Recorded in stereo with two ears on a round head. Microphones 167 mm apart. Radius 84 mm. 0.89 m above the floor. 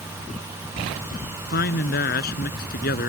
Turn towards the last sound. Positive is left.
turn(degrees=55)  # may be behind; listen again after turning